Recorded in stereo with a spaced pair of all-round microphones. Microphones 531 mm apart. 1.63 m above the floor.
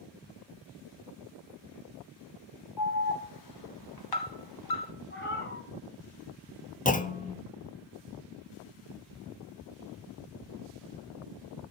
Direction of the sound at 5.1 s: 20° left (ahead or behind).